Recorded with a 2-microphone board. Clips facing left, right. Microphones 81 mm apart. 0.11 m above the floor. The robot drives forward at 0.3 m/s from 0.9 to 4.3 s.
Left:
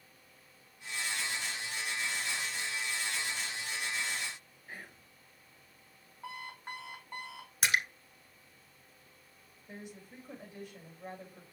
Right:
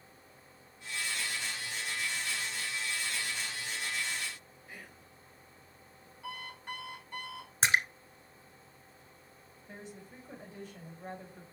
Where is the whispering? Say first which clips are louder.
Left 2 dB; 45° left (ahead or behind), 2.0 m.